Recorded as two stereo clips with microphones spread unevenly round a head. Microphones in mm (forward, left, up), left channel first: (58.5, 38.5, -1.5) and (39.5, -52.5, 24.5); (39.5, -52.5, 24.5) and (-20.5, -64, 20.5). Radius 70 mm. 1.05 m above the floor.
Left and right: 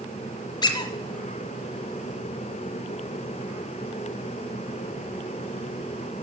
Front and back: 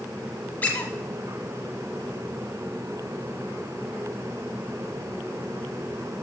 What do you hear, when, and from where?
0.6 s a squeak: 50° left, 1.0 m